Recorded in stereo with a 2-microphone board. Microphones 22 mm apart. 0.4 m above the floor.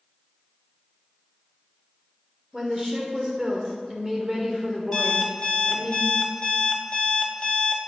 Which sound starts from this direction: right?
A woman speaking, at 2.5 s.